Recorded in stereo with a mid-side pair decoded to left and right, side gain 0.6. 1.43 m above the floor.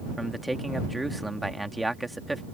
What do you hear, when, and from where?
0.2 s a man speaking: 10° right